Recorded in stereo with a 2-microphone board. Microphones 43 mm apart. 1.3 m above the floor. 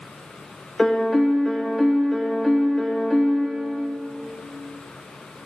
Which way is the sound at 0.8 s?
10° left (ahead or behind).